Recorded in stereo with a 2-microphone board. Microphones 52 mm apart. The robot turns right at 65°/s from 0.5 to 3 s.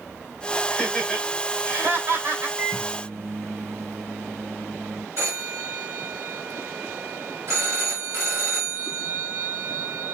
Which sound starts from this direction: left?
Laughter, at 0.7 s.